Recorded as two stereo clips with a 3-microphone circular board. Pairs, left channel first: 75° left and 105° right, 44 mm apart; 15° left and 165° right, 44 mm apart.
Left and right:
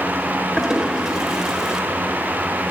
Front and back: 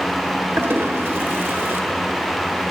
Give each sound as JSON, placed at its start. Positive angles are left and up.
{"t": 0.6, "sound": "a toilet flushing", "azimuth_deg": 175, "distance_m": 0.8}